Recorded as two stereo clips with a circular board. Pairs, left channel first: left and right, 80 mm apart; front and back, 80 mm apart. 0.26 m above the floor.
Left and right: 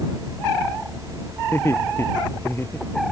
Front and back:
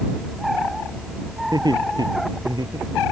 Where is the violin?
No violin in this recording.